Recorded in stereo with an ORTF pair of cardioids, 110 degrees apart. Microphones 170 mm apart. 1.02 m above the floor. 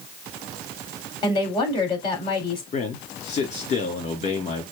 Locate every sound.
1.2 s a woman speaking: 30° left, 2.5 m
2.7 s a man speaking: 45° left, 2.5 m